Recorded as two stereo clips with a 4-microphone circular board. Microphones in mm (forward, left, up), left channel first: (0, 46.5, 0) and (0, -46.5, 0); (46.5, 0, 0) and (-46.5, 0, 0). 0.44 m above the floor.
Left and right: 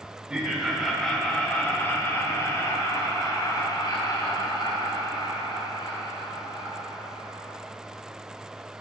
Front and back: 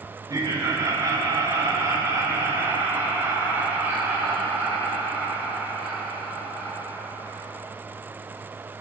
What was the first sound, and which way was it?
Laughter, 165° right.